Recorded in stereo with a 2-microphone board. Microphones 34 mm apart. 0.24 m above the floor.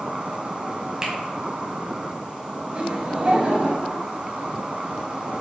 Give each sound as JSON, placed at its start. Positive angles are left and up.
{"t": 0.0, "sound": "an insect", "side_deg": -35, "distance_m": 0.7}
{"t": 1.0, "sound": "a finger snap", "side_deg": -20, "distance_m": 1.1}
{"t": 2.7, "sound": "laughter", "side_deg": -35, "distance_m": 1.1}